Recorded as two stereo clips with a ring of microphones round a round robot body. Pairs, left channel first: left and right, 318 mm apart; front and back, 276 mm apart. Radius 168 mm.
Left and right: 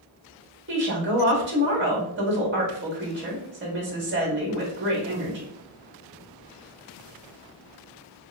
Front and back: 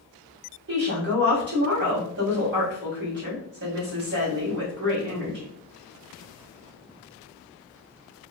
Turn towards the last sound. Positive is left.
turn(degrees=-140)